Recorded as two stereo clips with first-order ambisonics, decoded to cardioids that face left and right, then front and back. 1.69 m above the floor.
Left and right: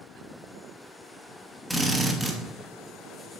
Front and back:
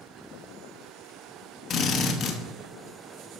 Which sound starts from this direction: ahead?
A drill, at 1.7 s.